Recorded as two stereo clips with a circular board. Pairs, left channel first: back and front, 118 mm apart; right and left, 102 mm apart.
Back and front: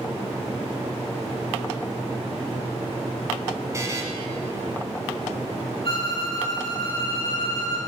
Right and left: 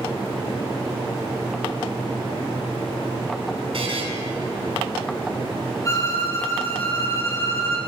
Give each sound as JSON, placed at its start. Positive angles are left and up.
{"t": 3.7, "sound": "a buzzer", "azimuth_deg": 65, "distance_m": 2.0}
{"t": 5.8, "sound": "a violin", "azimuth_deg": -145, "distance_m": 2.5}